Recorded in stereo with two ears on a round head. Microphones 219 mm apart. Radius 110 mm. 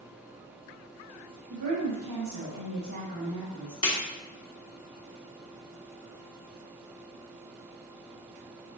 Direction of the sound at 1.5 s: 70° right (ahead or behind).